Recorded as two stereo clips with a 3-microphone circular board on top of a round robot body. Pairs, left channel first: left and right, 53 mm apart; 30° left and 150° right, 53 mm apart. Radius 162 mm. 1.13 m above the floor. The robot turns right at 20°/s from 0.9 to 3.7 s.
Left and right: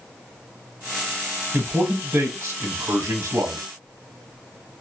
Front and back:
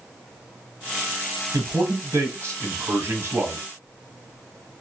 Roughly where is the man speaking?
Behind right.